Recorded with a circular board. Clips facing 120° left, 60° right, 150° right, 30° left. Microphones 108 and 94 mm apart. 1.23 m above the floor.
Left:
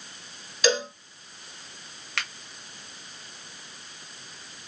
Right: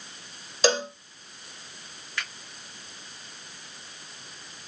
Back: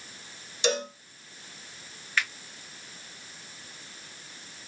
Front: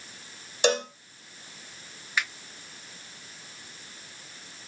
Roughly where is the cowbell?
Ahead.